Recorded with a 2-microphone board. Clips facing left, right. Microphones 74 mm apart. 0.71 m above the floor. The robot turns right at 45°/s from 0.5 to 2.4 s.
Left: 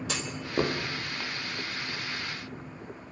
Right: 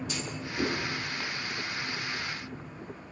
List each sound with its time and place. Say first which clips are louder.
0.1 s a clunk: left 3 dB; 75° left (ahead or behind), 3 m; by 0.8 s 65° left (ahead or behind), 3 m